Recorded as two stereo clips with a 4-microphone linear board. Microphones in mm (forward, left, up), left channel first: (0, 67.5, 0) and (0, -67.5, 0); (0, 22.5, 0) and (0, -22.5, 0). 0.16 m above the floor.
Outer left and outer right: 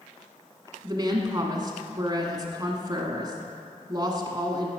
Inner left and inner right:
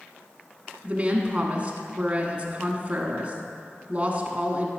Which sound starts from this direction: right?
A woman speaking, at 0.8 s.